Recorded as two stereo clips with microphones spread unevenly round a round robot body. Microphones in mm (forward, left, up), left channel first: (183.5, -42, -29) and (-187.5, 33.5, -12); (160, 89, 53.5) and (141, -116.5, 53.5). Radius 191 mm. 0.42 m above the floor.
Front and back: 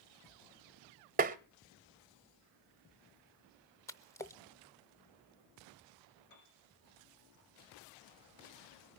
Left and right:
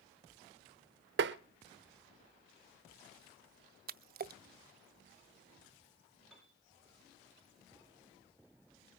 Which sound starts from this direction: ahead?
A piano, at 6.3 s.